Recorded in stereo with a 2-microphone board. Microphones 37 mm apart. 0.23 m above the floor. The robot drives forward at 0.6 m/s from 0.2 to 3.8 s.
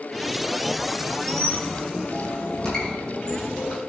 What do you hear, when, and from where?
1.3 s a squeak: 15° left (ahead or behind), 4.5 m